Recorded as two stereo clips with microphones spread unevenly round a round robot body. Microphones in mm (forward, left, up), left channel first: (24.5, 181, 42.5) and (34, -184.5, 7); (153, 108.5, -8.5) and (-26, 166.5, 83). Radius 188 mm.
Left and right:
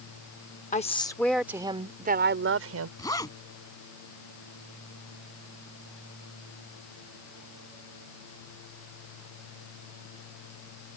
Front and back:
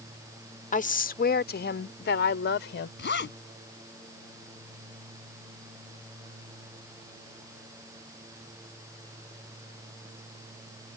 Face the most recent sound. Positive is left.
turn(degrees=10)